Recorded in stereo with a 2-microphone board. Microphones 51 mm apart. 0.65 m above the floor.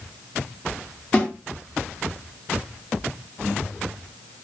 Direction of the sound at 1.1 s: 30° left (ahead or behind).